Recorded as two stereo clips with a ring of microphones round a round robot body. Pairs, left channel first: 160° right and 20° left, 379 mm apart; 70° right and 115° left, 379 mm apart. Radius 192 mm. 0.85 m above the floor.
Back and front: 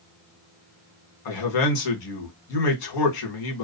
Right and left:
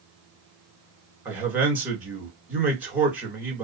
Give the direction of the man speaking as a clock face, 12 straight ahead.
5 o'clock.